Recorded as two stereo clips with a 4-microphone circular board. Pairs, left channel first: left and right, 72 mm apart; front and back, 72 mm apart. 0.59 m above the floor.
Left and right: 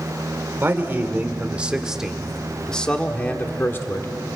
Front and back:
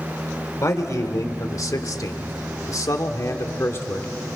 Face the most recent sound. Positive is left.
turn(degrees=45)